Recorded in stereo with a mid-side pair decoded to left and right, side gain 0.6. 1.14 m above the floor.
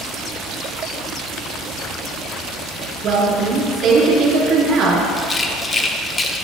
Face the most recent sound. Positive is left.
turn(degrees=25)